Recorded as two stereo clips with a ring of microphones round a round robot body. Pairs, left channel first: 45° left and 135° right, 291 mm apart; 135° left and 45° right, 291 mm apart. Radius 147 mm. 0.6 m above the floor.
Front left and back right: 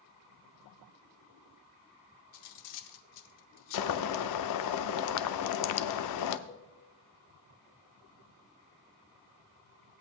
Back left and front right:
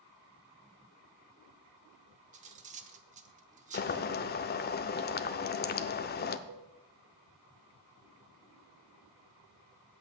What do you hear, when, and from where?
2.3 s cutlery clinking: 20° left, 0.8 m
3.7 s boiling: 75° left, 0.6 m
6.5 s a cowbell: 25° right, 0.9 m